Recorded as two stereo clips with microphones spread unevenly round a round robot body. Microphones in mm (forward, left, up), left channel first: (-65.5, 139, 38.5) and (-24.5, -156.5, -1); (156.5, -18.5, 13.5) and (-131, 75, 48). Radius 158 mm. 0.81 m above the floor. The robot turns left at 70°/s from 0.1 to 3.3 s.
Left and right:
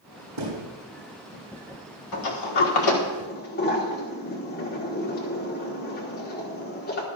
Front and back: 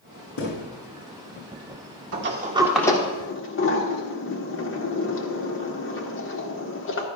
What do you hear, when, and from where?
0.4 s a thud: 70° right, 5 m; by 0.7 s 90° right, 5 m
2.1 s a sliding door: 115° left, 1.5 m; by 7.1 s 35° left, 1.5 m